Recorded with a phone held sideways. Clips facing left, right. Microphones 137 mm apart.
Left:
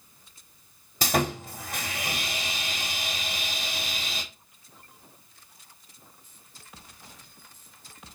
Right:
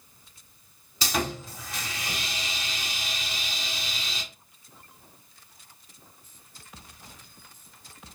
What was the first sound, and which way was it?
Sawing, 50° left (ahead or behind).